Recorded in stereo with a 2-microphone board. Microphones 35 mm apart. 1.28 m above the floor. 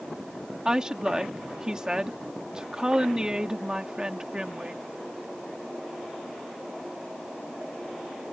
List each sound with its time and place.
0.7 s a woman speaking: 20° right (ahead or behind)